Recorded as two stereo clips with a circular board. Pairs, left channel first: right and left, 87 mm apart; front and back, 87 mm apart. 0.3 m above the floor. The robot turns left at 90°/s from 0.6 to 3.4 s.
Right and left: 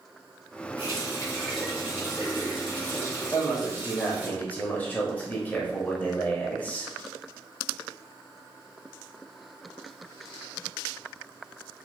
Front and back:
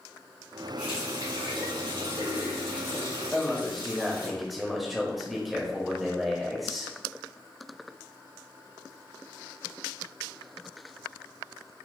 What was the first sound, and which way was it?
A running tap, 105° right.